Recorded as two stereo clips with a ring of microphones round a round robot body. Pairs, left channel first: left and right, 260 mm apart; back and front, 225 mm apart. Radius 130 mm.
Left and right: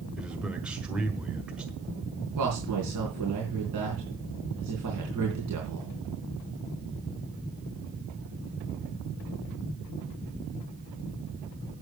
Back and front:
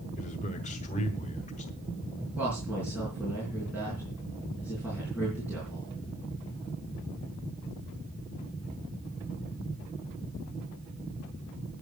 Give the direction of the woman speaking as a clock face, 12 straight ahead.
3 o'clock.